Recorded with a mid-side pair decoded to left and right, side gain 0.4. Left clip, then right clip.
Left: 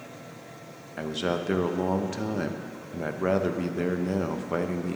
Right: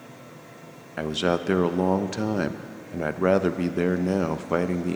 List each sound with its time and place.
1.0 s a man speaking: 40° right, 0.7 m